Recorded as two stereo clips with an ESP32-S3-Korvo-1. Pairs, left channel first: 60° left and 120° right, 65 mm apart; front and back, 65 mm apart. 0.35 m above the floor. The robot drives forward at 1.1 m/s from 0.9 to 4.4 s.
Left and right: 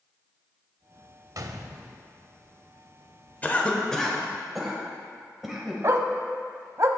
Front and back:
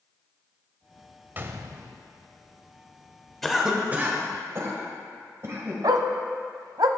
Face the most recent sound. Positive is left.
turn(degrees=-165)